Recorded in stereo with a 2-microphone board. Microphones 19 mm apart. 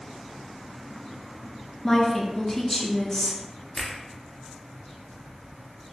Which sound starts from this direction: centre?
A woman speaking, at 1.8 s.